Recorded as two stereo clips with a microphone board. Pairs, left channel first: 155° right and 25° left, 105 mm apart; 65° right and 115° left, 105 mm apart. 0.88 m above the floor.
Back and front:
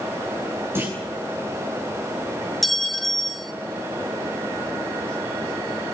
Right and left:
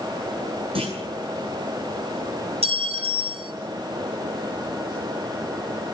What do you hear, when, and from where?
0.8 s a clunk: 90° left, 9 m
2.6 s a clink: 115° left, 1.9 m